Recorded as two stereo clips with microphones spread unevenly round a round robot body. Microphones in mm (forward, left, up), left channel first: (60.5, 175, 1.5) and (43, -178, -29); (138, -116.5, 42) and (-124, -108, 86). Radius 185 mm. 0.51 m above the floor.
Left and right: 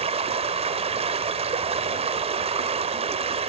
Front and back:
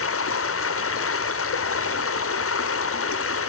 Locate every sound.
0.0 s running water: 20° right, 1.5 m